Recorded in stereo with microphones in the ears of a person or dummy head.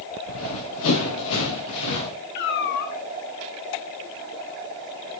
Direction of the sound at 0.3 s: 70° left (ahead or behind).